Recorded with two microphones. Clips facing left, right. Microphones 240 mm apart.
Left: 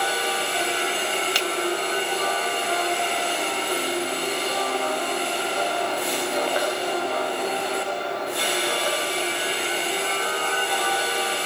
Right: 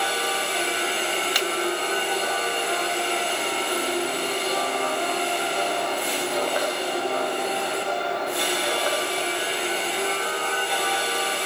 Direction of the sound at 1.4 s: 25° left (ahead or behind).